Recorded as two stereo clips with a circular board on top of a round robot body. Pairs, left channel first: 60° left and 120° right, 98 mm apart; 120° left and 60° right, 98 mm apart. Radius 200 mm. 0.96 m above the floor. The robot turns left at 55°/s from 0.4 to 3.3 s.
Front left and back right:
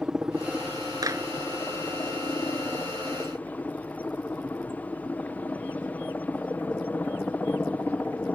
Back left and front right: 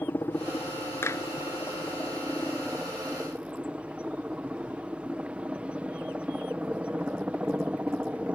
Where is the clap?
175° right; by 1.2 s 175° left.